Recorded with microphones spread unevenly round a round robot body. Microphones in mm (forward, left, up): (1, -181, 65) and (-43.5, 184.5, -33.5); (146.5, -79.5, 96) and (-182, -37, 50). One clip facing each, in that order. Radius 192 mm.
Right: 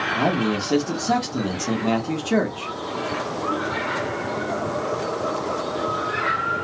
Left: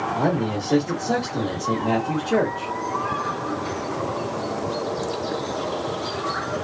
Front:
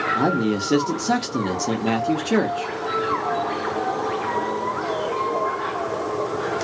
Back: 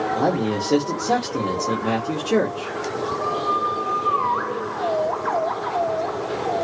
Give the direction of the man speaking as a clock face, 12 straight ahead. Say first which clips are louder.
Right 1 dB, front 2 dB; 1 o'clock.